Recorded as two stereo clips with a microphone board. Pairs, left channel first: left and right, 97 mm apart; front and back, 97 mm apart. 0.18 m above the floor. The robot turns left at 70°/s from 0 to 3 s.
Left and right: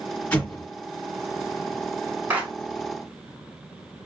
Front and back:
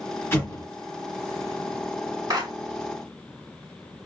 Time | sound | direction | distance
0.3 | an explosion | 35° left | 1.2 m
2.3 | a clap | 155° right | 1.2 m